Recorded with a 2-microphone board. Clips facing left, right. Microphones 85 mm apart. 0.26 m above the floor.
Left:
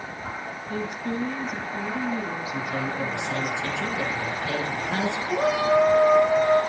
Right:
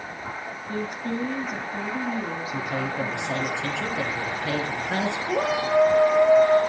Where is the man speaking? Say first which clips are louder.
Right 1 dB; 75° right (ahead or behind), 5.5 m.